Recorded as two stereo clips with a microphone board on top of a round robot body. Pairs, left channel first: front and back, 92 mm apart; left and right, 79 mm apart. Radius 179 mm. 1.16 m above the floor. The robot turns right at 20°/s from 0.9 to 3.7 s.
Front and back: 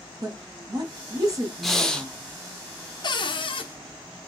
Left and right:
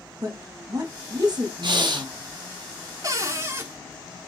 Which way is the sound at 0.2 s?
135° right.